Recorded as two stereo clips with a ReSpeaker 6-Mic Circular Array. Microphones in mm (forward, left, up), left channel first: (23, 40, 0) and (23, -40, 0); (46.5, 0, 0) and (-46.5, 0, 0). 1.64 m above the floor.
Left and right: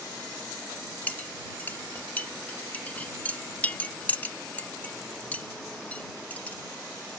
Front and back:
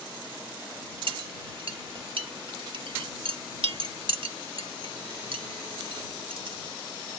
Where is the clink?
160° left.